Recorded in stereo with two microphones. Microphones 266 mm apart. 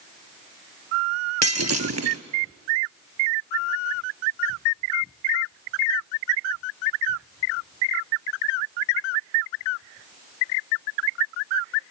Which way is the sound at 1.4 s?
65° right (ahead or behind).